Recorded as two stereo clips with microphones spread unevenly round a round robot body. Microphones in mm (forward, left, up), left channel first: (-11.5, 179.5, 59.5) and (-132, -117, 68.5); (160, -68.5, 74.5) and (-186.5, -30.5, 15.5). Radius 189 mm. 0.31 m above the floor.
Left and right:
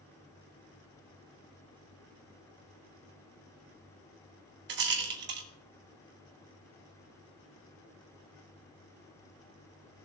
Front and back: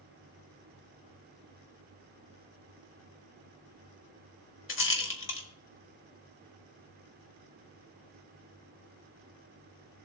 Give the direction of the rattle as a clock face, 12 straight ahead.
2 o'clock.